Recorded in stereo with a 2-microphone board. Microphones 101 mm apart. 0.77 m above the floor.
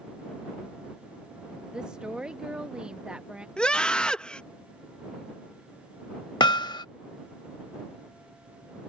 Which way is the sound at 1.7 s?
10° right (ahead or behind).